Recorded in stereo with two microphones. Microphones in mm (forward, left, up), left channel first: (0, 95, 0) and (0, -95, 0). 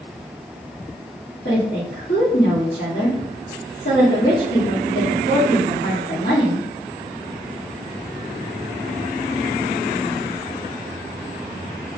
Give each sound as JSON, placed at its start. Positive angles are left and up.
{"t": 1.4, "sound": "a woman speaking", "side_deg": 60, "distance_m": 1.3}